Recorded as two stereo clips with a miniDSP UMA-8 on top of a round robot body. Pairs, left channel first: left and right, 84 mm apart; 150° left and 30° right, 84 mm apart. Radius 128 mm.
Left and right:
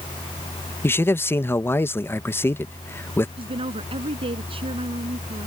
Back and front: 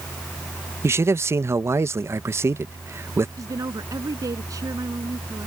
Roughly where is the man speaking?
Ahead left.